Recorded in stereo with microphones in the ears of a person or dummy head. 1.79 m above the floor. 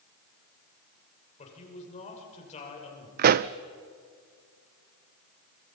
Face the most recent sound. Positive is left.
turn(degrees=-45)  # may be behind; listen again after turning